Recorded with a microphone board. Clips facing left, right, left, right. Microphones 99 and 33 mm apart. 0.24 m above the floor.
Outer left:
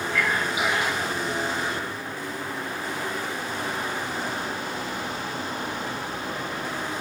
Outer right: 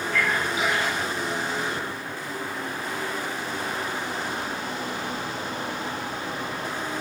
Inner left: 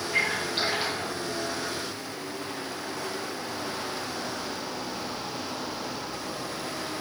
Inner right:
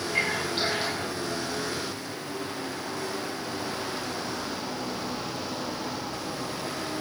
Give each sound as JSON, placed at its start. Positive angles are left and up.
{"t": 0.1, "sound": "a splash", "side_deg": 20, "distance_m": 6.5}